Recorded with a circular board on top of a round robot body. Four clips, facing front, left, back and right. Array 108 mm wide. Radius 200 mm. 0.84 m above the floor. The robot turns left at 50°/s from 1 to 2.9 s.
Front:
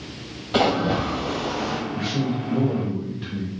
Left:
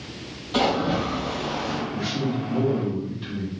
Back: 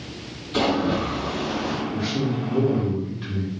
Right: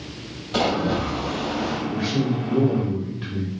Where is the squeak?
No squeak in this recording.